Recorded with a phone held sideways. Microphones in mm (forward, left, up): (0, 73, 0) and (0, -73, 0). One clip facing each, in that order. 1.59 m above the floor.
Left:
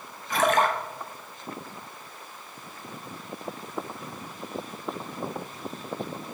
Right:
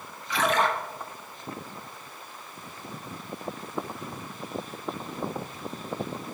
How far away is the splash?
About 1.1 m.